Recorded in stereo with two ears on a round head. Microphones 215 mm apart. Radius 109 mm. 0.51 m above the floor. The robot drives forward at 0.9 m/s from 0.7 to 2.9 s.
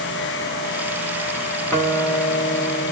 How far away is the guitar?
About 1.0 m.